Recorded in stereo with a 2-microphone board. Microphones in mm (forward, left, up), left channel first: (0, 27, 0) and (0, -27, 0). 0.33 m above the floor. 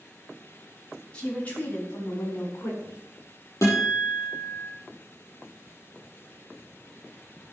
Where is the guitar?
65° left (ahead or behind), 6 m.